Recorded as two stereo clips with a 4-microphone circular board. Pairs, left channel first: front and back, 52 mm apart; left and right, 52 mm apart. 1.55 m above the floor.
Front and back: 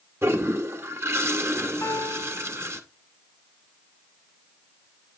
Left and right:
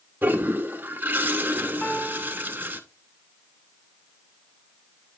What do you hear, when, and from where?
0.2 s a toilet flushing: 145° right, 0.9 m
1.8 s a piano: 30° left, 2.5 m